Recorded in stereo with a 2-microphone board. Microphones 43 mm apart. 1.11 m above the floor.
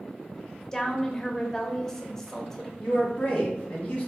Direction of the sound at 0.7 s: 15° left (ahead or behind).